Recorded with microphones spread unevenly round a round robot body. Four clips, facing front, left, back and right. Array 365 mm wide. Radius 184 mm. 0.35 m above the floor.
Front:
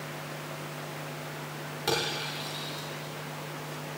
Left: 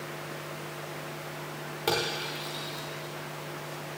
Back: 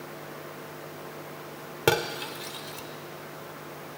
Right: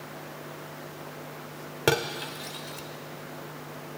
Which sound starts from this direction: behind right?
Cutlery clinking, at 1.9 s.